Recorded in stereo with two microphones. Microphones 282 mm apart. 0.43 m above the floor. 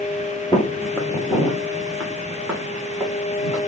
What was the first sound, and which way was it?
Footsteps, 15° left (ahead or behind).